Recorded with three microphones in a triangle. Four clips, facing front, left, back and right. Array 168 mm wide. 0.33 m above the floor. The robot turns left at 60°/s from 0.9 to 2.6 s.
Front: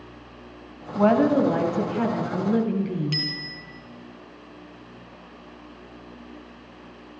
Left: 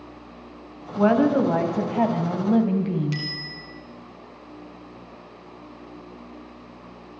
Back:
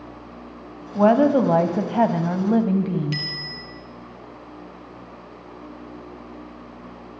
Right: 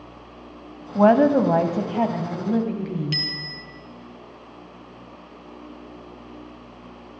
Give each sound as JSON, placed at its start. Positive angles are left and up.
{"t": 0.9, "sound": "a woman speaking", "azimuth_deg": -110, "distance_m": 2.5}
{"t": 3.1, "sound": "a bicycle bell", "azimuth_deg": -115, "distance_m": 4.5}